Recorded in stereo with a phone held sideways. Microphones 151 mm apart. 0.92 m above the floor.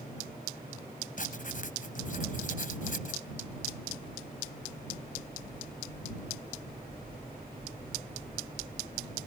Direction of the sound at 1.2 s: 60° left (ahead or behind).